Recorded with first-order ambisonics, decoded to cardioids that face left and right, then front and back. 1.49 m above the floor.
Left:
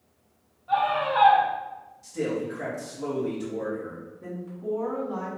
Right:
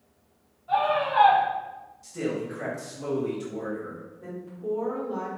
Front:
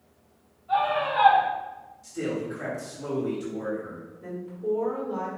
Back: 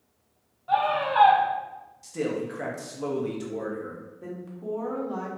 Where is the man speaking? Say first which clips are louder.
Left 2 dB, back 1 dB; 175° right, 1.2 m.